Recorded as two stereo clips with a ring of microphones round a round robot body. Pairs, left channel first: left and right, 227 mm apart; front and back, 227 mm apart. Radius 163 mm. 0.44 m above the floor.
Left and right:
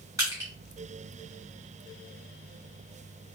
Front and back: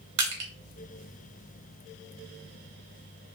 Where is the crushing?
170° right, 1.0 m.